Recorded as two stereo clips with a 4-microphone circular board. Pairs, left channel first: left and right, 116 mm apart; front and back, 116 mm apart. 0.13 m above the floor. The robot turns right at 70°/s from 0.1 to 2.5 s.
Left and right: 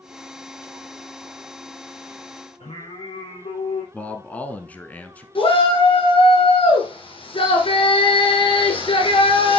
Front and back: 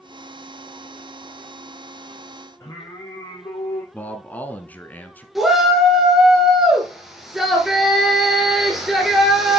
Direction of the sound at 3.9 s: 40° left.